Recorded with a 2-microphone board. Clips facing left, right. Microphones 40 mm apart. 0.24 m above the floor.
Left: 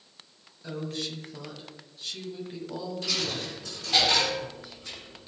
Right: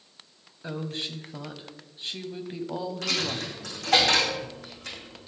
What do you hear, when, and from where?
0.6 s a woman speaking: 35° right (ahead or behind), 1.1 m
3.0 s a dropped coin: 80° right, 4 m